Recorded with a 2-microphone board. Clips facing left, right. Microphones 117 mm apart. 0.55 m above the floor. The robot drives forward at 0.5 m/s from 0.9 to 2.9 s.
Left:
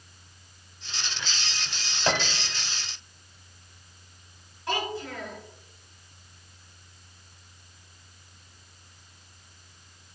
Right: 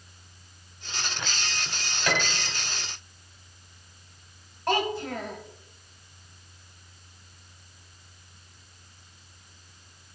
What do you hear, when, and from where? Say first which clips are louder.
2.1 s a piano: left 1 dB; 30° left (ahead or behind), 1.0 m; by 2.5 s 25° left (ahead or behind), 1.2 m
4.7 s a child speaking: right 4 dB; 50° right (ahead or behind), 1.6 m